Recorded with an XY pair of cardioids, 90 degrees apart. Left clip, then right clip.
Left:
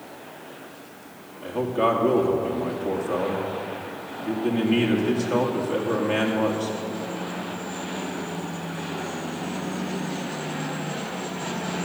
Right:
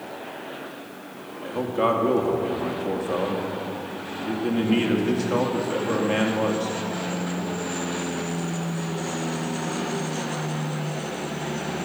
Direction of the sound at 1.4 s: 5° right.